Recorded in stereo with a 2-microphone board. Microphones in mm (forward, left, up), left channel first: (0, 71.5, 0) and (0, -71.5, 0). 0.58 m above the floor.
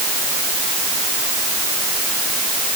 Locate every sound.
Only background noise.